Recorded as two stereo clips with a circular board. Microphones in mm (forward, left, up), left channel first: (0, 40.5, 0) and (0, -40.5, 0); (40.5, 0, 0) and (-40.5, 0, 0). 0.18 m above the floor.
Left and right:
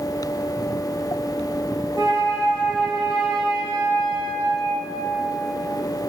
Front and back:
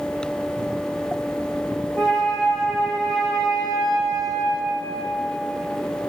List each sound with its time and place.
2.0 s a flute: 70° left, 3.5 m